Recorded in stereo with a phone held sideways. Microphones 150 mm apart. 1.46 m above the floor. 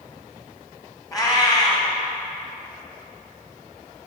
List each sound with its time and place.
1.1 s a cat meowing: 25° left (ahead or behind), 1.3 m